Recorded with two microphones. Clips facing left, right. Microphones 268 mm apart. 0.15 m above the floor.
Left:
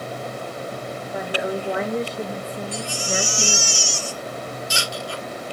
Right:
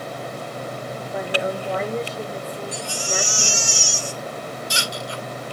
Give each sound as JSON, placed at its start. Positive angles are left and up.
{"t": 1.1, "sound": "a woman speaking", "side_deg": 5, "distance_m": 2.5}
{"t": 2.7, "sound": "a baby crying", "side_deg": 30, "distance_m": 1.5}